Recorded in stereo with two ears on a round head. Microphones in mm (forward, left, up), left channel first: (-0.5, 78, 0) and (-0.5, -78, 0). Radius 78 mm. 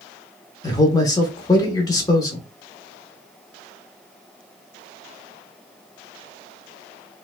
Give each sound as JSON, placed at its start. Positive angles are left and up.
{"t": 0.6, "sound": "a man speaking", "side_deg": 20, "distance_m": 0.8}